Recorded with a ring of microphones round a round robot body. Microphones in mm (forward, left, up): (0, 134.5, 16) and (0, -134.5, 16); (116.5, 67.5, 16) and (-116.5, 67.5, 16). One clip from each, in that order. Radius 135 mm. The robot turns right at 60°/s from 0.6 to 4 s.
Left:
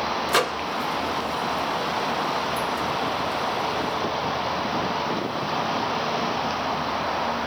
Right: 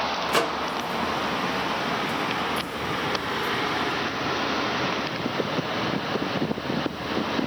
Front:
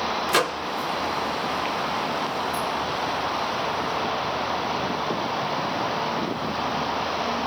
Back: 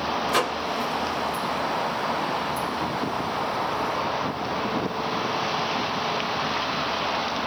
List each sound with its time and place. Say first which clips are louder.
0.3 s a microwave: left 2 dB, front 2 dB; 30° left, 0.8 m